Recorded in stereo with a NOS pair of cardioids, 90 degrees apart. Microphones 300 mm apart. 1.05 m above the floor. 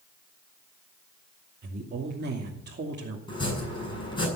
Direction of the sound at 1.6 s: 35° right.